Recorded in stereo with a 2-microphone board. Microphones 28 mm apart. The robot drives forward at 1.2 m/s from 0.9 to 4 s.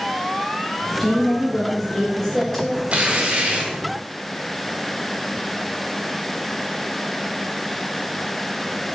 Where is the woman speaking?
5° left (ahead or behind), 5 m; by 2.8 s 10° left (ahead or behind), 3 m.